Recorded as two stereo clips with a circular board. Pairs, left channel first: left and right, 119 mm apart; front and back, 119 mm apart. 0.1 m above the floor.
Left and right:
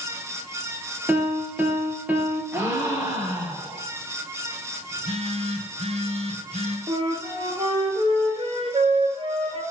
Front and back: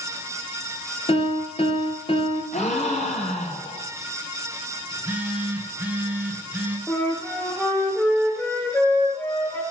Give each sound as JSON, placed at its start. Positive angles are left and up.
{"t": 1.1, "sound": "a piano", "azimuth_deg": -15, "distance_m": 3.0}
{"t": 2.5, "sound": "a gasp", "azimuth_deg": -20, "distance_m": 5.0}
{"t": 4.9, "sound": "a phone buzzing", "azimuth_deg": -105, "distance_m": 2.5}
{"t": 6.9, "sound": "a flute", "azimuth_deg": -70, "distance_m": 3.0}